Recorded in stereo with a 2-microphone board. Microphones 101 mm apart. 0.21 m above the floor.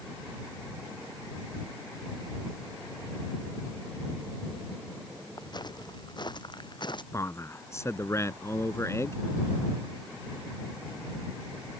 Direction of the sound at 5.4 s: 45° left (ahead or behind).